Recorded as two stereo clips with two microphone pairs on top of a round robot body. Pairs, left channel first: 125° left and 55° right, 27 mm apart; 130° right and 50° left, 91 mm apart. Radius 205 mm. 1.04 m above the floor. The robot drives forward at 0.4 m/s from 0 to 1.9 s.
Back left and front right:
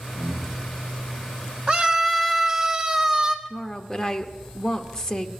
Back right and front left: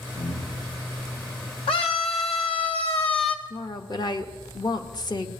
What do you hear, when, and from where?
0.2 s breathing: 125° right, 4 m; by 0.7 s 130° right, 4 m
1.7 s a scream: 110° right, 0.8 m; by 3.4 s 115° right, 0.8 m
3.5 s a woman speaking: 155° right, 0.9 m